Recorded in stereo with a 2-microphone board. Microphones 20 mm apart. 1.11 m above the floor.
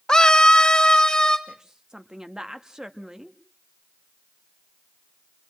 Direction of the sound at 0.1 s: 35° left (ahead or behind).